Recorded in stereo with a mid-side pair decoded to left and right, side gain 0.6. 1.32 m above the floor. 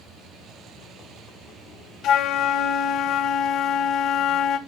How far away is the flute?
About 1.3 m.